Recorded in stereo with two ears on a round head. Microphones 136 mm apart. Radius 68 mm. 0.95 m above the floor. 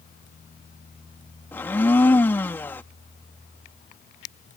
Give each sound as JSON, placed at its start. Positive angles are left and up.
{"t": 1.5, "sound": "a blender", "side_deg": 15}